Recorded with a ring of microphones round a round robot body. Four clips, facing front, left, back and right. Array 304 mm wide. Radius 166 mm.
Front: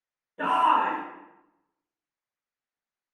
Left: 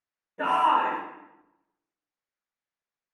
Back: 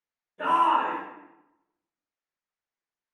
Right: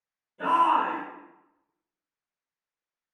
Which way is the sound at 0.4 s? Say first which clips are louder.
Even, even; 55° left.